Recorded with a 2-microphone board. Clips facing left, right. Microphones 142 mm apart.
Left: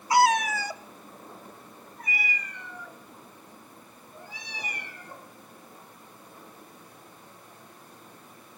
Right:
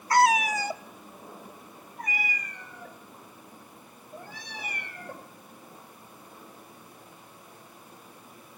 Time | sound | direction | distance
0.1 | a cat meowing | 15° left (ahead or behind) | 0.5 m